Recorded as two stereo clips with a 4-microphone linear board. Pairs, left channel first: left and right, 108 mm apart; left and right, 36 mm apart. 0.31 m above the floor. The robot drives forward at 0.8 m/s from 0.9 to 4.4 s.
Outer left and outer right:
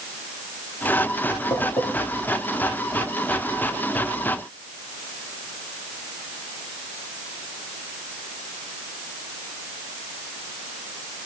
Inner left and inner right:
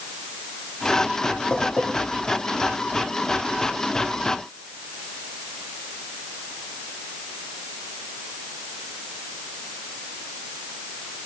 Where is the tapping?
50° left (ahead or behind), 9.5 m.